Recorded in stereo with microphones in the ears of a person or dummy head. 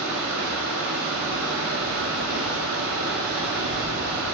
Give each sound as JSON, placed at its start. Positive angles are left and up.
{"t": 0.0, "sound": "running water", "side_deg": -65, "distance_m": 1.0}